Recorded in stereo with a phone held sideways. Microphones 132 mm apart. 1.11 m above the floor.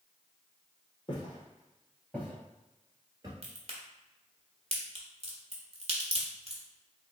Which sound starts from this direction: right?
A crack, at 3.4 s.